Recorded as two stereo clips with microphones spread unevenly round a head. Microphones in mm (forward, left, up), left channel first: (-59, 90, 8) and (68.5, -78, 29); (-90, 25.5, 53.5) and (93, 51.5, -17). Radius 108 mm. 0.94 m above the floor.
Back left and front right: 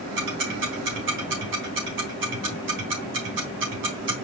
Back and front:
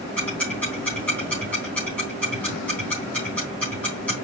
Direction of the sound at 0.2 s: 90° right.